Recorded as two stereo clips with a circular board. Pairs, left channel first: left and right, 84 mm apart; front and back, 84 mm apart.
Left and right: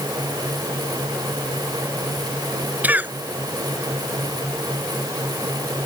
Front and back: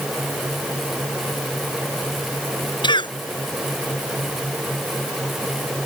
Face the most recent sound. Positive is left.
turn(degrees=-20)